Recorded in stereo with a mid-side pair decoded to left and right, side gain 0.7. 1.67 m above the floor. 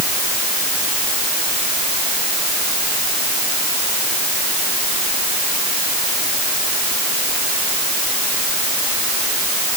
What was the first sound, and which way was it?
Only background noise.